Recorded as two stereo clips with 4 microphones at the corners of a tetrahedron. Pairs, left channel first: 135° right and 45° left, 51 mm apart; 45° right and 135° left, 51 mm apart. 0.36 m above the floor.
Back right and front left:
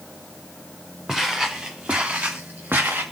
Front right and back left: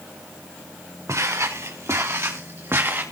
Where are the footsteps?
130° left, 3 m; by 3.0 s 90° left, 3 m.